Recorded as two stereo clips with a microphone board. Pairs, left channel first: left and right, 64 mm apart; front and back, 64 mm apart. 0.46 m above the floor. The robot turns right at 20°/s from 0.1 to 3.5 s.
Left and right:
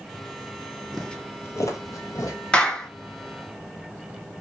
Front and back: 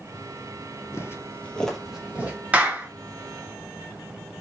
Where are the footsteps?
5° right, 0.6 m; by 2.4 s 120° left, 1.0 m.